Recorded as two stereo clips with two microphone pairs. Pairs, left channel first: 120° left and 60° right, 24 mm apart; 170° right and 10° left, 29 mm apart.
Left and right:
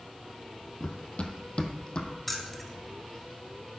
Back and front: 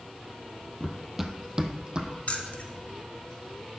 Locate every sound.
0.8 s running footsteps: 110° left, 0.8 m; by 2.1 s 70° left, 1.2 m
2.3 s keys jangling: 160° right, 1.2 m